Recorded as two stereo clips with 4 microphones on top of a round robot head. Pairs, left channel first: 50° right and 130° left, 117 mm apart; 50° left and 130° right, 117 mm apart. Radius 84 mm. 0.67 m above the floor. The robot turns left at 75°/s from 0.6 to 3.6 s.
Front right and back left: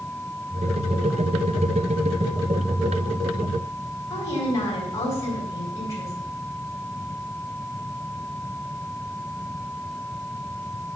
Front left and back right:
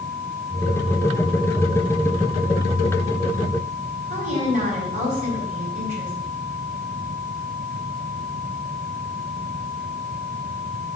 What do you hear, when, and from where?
4.1 s a woman speaking: 115° right, 4 m